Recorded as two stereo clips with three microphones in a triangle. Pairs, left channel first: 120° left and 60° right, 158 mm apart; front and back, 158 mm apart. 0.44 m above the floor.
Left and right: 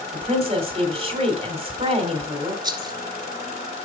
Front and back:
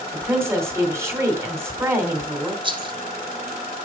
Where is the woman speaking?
110° right, 2.5 m.